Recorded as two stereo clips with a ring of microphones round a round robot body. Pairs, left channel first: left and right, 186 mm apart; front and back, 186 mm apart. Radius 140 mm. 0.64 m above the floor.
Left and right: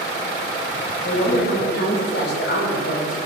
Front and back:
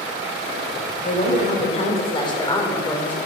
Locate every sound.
1.0 s a woman speaking: 40° left, 2.5 m; by 3.1 s 80° left, 2.5 m